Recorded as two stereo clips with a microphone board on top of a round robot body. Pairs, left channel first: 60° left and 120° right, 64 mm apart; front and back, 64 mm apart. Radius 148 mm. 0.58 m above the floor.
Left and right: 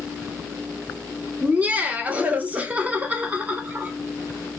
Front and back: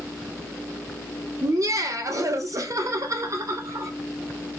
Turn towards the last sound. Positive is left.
turn(degrees=175)